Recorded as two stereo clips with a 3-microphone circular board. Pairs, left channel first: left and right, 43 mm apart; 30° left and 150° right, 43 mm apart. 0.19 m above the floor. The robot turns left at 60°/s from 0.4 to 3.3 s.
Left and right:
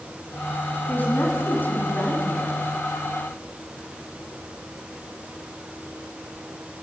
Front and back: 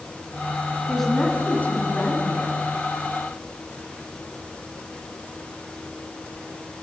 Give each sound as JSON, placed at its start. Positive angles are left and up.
{"t": 0.9, "sound": "a woman speaking", "azimuth_deg": 120, "distance_m": 1.7}